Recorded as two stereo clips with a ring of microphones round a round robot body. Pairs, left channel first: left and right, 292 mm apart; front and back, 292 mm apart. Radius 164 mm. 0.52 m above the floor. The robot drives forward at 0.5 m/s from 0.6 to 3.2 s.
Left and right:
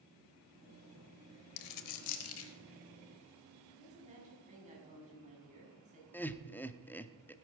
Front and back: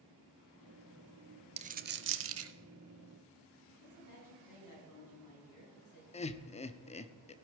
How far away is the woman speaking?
About 6 m.